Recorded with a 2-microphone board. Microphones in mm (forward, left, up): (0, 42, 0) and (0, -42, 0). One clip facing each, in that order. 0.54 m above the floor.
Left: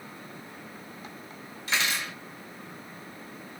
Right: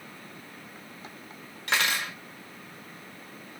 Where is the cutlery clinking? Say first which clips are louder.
Right 2 dB; 60° right (ahead or behind), 1.0 m.